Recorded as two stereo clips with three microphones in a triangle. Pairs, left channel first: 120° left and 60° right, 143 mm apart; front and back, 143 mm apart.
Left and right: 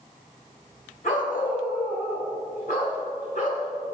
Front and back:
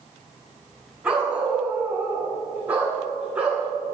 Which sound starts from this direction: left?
A dog barking, at 1.0 s.